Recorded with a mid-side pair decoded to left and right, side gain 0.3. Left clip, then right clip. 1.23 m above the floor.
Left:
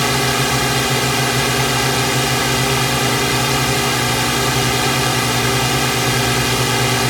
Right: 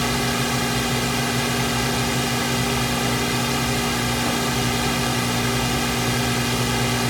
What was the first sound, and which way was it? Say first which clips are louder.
A drone: left 6 dB; 70° left.